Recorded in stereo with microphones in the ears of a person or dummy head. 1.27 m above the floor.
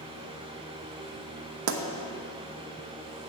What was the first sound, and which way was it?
A fan, 25° right (ahead or behind).